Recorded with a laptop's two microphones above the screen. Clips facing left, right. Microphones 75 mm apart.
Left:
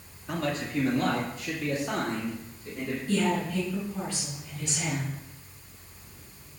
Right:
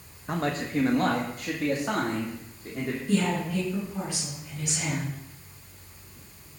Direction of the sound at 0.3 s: 35° right (ahead or behind).